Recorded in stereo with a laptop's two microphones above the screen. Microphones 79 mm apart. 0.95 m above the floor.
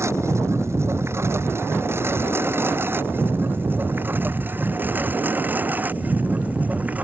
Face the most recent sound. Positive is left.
turn(degrees=-20)  # may be behind; listen again after turning